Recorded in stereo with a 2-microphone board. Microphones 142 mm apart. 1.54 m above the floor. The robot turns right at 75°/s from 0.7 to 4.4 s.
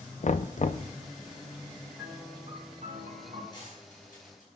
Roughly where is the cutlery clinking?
Left.